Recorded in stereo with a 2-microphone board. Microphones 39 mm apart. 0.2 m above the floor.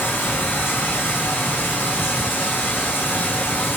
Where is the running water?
70° left (ahead or behind), 6.5 m.